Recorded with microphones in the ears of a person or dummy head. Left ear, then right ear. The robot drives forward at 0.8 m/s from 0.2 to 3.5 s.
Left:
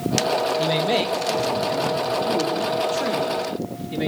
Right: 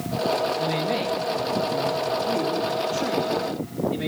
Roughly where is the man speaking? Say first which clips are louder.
Left 4 dB; left.